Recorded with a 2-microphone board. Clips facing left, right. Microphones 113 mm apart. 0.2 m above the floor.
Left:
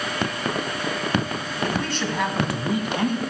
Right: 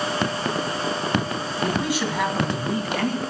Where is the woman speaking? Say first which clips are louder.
Right 2 dB; 15° right (ahead or behind), 1.6 m; by 3.2 s 20° left (ahead or behind), 2.0 m.